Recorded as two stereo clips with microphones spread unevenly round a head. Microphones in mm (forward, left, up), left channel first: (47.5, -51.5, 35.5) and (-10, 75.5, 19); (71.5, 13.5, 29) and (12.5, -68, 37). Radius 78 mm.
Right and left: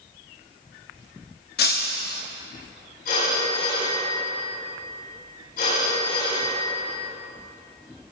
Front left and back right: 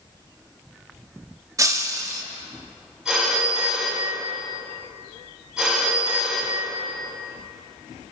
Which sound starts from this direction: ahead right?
A phone ringing, at 3.0 s.